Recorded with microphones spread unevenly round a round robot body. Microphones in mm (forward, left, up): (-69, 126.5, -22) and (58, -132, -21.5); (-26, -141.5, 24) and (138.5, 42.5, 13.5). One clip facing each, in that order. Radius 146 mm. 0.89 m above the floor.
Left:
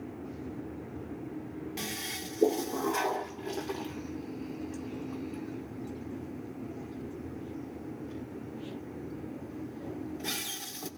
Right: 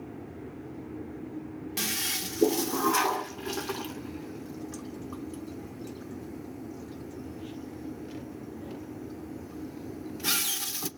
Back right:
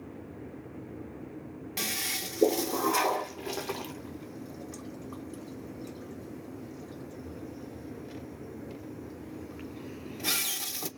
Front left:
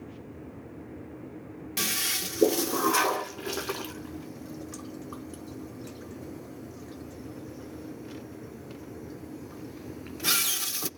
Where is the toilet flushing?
15° right, 0.7 m.